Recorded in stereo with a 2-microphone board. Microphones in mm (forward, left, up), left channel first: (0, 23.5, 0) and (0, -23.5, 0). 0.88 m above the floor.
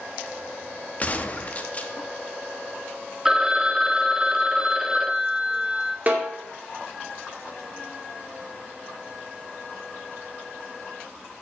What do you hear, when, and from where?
1.0 s a gunshot: 30° left (ahead or behind), 0.8 m
3.2 s a phone ringing: 10° right (ahead or behind), 0.6 m
6.1 s a snare drum: 35° right (ahead or behind), 2.5 m